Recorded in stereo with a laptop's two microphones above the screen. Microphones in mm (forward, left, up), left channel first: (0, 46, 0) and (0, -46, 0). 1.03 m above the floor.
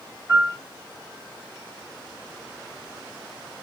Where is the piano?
25° right (ahead or behind), 2 m.